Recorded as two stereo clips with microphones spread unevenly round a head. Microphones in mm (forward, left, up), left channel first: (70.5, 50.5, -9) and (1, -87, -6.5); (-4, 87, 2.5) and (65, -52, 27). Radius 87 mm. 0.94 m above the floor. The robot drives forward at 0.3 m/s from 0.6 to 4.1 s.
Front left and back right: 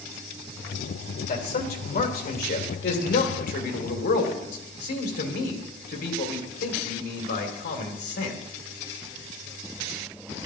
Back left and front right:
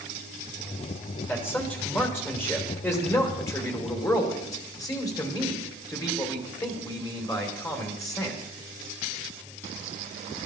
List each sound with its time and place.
1.3 s a man speaking: 35° left, 3 m; by 8.4 s 50° left, 2.5 m